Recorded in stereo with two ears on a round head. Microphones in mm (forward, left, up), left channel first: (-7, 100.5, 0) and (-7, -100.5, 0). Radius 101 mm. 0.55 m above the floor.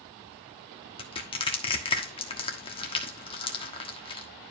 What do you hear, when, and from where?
1.0 s crushing: 25° left (ahead or behind), 1.3 m